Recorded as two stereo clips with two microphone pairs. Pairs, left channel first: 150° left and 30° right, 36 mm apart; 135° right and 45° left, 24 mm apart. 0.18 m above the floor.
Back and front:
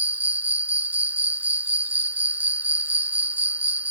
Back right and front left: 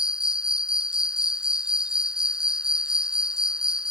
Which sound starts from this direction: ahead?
An insect, at 0.0 s.